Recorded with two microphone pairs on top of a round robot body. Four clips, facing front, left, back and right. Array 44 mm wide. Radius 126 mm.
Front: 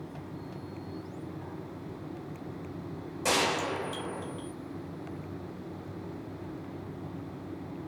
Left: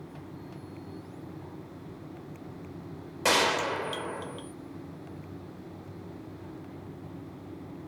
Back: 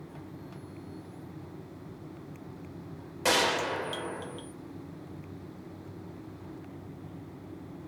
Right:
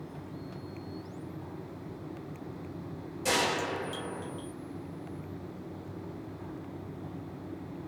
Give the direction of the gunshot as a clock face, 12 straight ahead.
8 o'clock.